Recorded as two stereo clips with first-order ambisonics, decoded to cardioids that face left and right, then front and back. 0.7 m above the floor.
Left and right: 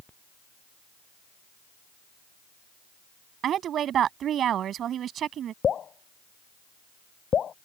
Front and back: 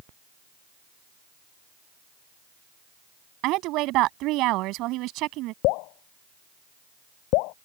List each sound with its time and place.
3.4 s a woman speaking: 145° right
5.6 s dripping: 25° left